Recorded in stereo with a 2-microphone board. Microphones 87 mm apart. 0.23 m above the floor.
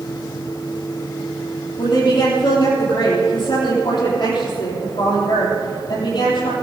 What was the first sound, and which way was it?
A woman speaking, 70° left (ahead or behind).